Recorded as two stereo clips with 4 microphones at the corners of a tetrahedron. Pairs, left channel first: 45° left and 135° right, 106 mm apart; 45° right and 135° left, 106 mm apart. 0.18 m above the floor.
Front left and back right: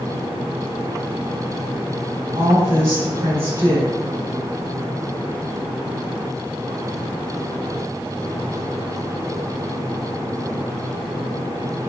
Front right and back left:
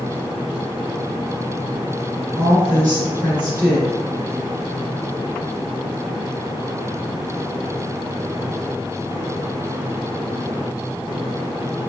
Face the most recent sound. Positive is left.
turn(degrees=-170)